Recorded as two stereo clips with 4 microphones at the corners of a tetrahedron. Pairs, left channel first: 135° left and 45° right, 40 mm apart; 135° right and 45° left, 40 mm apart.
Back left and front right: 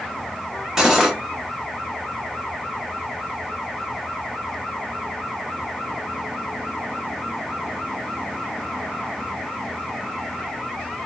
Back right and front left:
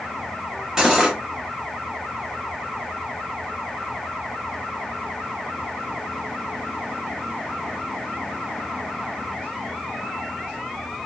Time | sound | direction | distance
0.8 | cutlery clinking | 5° left | 0.7 m